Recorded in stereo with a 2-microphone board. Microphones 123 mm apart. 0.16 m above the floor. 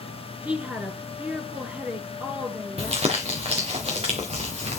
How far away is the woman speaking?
About 2.0 m.